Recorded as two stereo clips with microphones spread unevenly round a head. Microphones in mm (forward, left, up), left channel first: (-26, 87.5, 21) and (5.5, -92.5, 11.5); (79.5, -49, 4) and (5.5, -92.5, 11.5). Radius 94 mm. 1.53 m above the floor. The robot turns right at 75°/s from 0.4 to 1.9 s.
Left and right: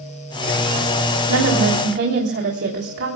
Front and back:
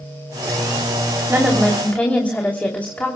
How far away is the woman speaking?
About 3 m.